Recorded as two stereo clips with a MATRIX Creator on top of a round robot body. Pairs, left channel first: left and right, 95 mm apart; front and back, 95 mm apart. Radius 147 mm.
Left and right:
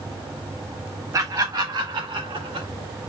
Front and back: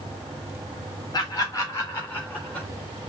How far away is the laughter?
About 2.5 m.